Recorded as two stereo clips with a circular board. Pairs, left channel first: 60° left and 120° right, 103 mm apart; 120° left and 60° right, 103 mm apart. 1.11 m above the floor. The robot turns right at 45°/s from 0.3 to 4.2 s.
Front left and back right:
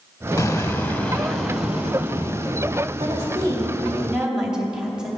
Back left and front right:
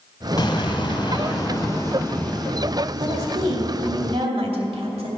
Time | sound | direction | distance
0.4 | an explosion | 110° left | 1.2 m
3.0 | a woman speaking | 90° right | 2.5 m